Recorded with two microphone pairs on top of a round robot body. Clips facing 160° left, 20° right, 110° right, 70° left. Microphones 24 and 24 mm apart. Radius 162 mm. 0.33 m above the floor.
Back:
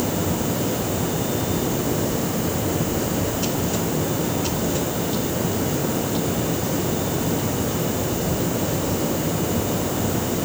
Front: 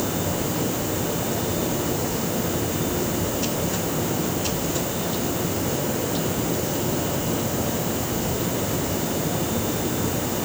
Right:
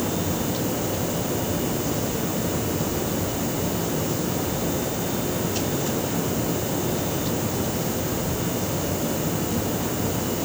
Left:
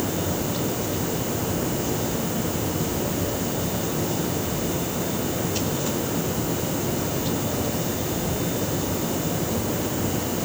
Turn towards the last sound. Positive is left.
No sound to turn to.